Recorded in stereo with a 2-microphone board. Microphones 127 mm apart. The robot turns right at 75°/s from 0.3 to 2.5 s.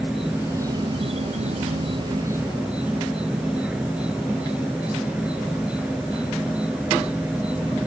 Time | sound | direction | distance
0.0 | an insect | 175° right | ?